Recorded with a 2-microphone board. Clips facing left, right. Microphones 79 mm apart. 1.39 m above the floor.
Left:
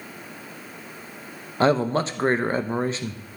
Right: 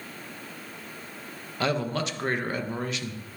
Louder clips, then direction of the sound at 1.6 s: Left 7 dB; 35° left (ahead or behind).